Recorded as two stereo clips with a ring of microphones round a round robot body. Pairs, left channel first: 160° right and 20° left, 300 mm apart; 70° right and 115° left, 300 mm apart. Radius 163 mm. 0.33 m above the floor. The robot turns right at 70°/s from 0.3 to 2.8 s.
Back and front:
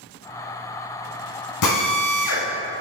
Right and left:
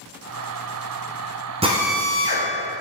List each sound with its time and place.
1.6 s a drill: straight behind, 1.8 m; by 2.5 s 120° right, 1.8 m